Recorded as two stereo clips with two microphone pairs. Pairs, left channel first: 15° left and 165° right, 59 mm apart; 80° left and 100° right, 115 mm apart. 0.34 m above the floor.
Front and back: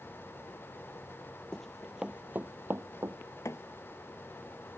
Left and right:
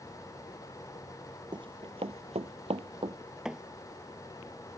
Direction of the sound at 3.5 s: 15° right.